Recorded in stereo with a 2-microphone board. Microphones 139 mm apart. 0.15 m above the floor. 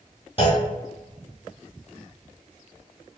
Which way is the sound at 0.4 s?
40° left (ahead or behind).